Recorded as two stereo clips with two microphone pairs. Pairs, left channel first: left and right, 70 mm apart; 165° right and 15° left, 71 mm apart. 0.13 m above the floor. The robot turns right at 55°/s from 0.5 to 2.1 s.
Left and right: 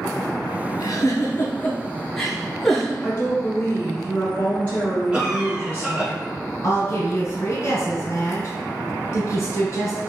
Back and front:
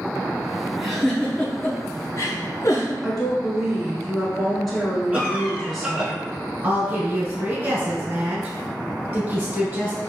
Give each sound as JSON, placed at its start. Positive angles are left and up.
{"t": 0.8, "sound": "a giggle", "azimuth_deg": 100, "distance_m": 0.7}
{"t": 3.0, "sound": "a woman speaking", "azimuth_deg": 100, "distance_m": 1.1}
{"t": 5.1, "sound": "a cough", "azimuth_deg": -30, "distance_m": 1.2}
{"t": 6.6, "sound": "a woman speaking", "azimuth_deg": 75, "distance_m": 1.5}